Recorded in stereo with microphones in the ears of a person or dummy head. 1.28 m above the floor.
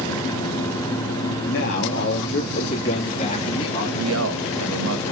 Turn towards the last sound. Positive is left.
turn(degrees=-85)